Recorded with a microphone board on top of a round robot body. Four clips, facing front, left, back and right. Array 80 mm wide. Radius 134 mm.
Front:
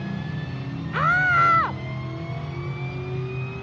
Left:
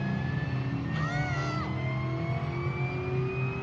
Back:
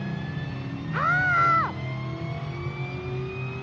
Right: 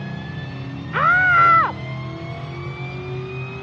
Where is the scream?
85° right.